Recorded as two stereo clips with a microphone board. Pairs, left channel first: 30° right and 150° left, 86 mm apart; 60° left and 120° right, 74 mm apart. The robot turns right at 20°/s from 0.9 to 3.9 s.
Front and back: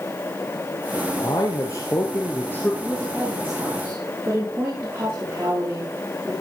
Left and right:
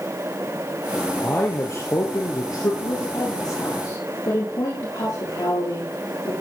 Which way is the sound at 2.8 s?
65° left.